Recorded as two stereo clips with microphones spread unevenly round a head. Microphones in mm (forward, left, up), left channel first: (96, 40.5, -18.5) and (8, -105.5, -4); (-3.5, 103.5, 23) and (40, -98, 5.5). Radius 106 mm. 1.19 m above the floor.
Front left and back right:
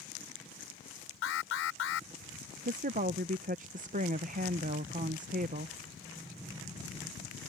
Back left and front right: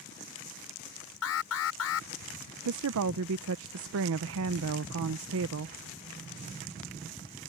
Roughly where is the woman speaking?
Right.